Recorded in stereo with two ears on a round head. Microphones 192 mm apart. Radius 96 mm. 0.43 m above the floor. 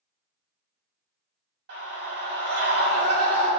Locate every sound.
1.7 s a scream: 55° right (ahead or behind), 3 m